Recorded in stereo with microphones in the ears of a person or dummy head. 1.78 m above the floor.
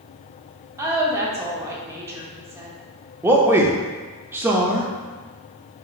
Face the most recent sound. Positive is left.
turn(degrees=-15)  # may be behind; listen again after turning